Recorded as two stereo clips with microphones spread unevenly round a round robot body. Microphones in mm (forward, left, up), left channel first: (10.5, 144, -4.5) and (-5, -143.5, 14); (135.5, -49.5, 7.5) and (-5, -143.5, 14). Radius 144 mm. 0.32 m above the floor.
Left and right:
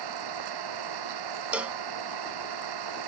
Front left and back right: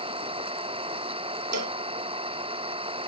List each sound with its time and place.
0.0 s an engine running: 90° right
1.5 s a cowbell: straight behind